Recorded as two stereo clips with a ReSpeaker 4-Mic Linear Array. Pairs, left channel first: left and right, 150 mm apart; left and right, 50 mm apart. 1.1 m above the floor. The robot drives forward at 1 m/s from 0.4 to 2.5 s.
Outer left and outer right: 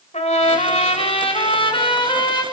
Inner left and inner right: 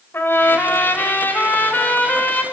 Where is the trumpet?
50° left (ahead or behind), 3.5 m; by 2.4 s 30° left (ahead or behind), 5 m.